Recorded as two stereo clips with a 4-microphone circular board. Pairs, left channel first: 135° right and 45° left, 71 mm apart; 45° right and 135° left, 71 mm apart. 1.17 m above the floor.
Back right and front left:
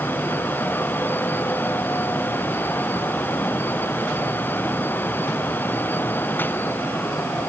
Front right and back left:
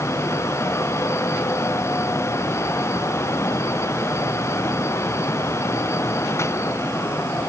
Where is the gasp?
No gasp in this recording.